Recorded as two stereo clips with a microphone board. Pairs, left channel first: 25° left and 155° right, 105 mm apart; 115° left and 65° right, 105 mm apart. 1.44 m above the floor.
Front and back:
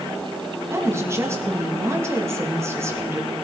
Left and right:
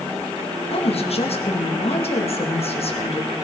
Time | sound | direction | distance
0.7 | a woman speaking | 135° left | 1.9 m